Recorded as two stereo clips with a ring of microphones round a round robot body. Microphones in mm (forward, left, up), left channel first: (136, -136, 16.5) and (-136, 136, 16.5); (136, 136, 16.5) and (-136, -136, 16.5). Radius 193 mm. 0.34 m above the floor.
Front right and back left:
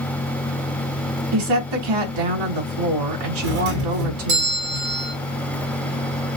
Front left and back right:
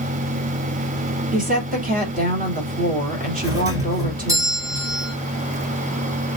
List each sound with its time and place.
1.3 s a woman speaking: 155° left, 3.5 m
3.4 s a doorbell: 145° left, 2.5 m